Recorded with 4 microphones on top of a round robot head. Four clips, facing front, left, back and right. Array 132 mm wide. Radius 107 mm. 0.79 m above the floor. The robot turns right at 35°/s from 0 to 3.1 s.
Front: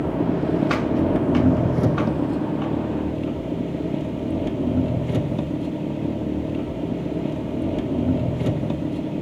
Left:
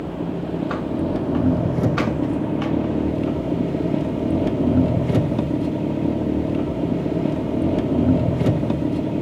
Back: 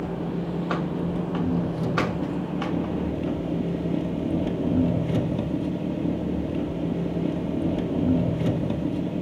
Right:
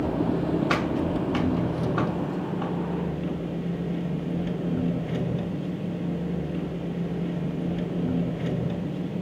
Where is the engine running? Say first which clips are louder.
Right 1 dB, front 7 dB; 20° right, 1.5 m; by 9.2 s 85° left, 1.5 m.